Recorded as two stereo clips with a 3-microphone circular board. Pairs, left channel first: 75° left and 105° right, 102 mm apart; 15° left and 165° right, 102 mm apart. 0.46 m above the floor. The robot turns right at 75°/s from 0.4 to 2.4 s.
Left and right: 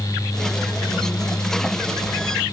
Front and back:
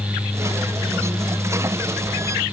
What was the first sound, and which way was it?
Only background noise.